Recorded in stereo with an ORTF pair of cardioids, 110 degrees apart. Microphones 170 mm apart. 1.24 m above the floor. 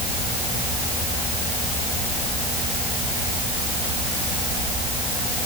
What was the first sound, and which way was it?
Only background noise.